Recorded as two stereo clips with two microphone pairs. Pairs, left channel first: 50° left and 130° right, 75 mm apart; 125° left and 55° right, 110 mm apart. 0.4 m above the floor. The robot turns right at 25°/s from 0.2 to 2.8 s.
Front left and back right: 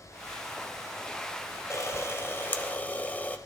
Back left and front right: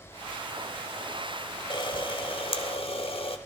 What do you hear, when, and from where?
1.7 s a camera shutter: 90° left, 0.8 m; by 3.4 s 115° left, 0.8 m